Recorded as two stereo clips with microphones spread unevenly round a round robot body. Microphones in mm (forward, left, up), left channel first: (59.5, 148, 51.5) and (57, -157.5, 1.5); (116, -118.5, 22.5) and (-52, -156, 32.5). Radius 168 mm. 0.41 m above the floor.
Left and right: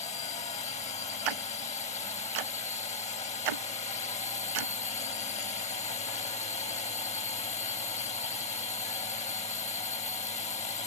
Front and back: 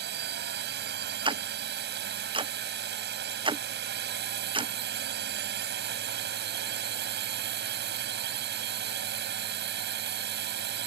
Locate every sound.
0.0 s a drone: 165° left
1.2 s ticking: 105° right